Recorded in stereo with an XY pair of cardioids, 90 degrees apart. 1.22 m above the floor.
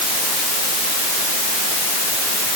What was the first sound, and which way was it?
Only background noise.